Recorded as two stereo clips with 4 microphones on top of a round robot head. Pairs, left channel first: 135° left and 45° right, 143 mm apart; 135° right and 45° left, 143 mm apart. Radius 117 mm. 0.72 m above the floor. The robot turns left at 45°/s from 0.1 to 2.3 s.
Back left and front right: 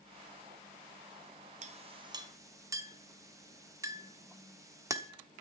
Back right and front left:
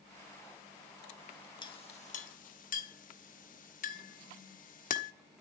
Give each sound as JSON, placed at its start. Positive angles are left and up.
{"t": 1.6, "sound": "a clink", "azimuth_deg": -80, "distance_m": 1.3}